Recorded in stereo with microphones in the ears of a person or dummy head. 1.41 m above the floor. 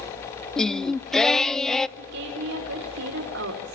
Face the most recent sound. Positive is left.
turn(degrees=-65)  # may be behind; listen again after turning